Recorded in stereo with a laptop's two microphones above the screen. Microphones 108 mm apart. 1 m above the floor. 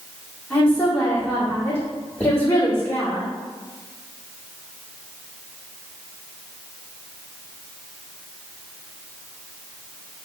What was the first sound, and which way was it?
A woman speaking, 15° left (ahead or behind).